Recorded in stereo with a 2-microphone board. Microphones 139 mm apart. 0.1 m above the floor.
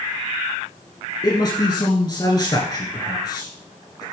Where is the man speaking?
30° left (ahead or behind), 1.9 m.